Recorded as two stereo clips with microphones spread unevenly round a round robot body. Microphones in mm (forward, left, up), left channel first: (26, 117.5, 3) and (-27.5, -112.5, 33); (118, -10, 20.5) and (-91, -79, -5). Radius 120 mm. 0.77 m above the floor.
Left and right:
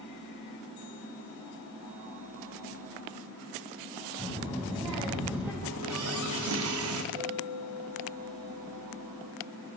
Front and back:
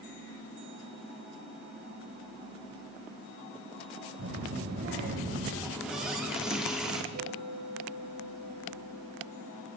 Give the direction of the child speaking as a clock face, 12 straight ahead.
6 o'clock.